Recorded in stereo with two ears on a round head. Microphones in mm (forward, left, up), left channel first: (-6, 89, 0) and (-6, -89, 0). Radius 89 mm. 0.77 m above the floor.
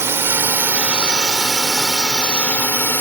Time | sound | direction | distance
0.0 | a drone | 10° right (ahead or behind) | ?